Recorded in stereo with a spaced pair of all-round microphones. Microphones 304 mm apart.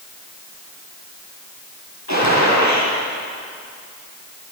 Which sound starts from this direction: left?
A gunshot, at 2.1 s.